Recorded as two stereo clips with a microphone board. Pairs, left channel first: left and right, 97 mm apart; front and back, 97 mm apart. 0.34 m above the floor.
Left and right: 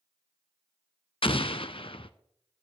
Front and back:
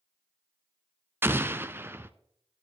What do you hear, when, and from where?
1.2 s an explosion: 110° left, 0.6 m